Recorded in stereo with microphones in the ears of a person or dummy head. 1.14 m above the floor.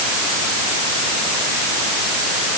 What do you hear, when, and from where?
Only background noise.